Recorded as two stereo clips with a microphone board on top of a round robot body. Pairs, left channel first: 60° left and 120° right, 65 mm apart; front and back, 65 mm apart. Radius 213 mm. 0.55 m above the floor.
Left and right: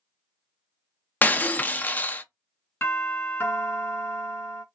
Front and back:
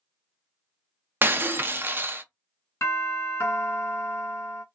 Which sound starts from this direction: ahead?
A doorbell, at 2.8 s.